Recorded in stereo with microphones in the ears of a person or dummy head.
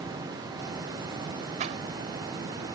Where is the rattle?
35° right (ahead or behind).